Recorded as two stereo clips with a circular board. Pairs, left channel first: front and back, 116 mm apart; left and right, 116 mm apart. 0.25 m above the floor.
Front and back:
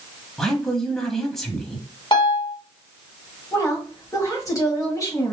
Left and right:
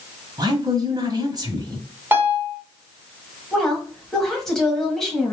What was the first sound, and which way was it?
A woman speaking, 85° right.